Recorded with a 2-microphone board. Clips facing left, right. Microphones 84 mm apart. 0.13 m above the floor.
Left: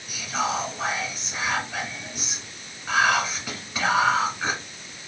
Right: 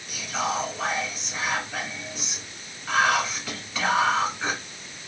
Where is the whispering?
10° left (ahead or behind), 1.5 m.